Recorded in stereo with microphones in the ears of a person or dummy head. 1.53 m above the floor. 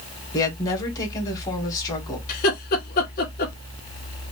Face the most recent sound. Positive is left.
turn(degrees=50)  # may be behind; listen again after turning